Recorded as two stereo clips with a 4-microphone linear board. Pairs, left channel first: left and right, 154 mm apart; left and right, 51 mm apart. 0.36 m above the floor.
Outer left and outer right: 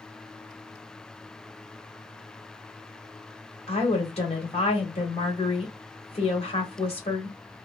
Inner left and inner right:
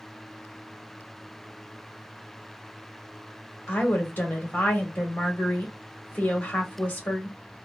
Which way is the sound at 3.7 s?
40° left (ahead or behind).